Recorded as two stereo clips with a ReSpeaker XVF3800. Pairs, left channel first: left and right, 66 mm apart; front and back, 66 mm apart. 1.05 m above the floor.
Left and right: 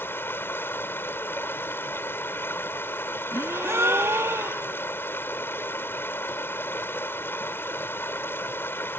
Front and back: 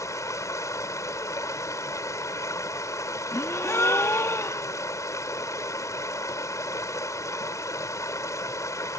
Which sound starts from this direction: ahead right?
A gasp, at 3.3 s.